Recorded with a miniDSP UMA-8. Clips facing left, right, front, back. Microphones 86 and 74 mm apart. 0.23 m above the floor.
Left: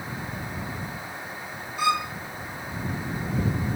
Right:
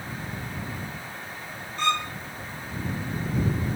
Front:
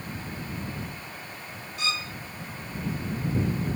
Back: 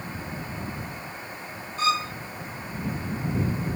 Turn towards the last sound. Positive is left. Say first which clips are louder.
# left 2 dB, back 8 dB
turn(degrees=165)